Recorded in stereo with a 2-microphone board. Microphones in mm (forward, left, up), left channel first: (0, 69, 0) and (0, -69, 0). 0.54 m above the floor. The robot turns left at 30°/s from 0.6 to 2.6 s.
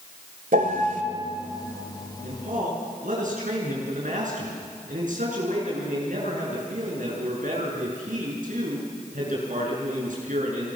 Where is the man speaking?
75° right (ahead or behind), 7 m; by 10.7 s 65° right (ahead or behind), 7 m.